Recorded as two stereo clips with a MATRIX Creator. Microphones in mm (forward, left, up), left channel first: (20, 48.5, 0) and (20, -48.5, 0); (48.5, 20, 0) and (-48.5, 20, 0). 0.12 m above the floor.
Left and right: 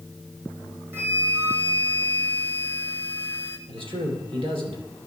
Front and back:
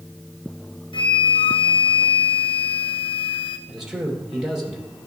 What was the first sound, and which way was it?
A flute, 25° right.